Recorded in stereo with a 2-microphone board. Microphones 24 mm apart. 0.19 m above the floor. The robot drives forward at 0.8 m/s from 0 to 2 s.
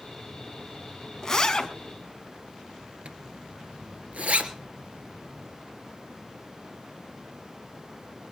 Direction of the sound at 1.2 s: 20° left (ahead or behind).